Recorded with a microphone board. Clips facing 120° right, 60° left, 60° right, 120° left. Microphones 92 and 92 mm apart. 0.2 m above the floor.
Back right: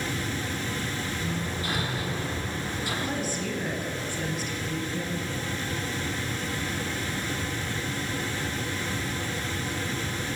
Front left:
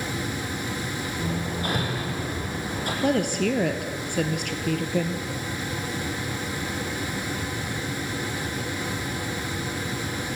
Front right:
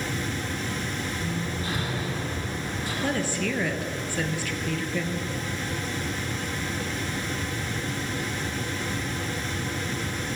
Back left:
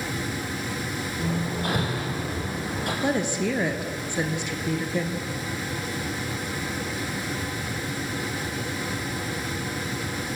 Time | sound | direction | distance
1.2 | hammering | 100° left | 7 m
3.0 | a woman speaking | 50° left | 3.5 m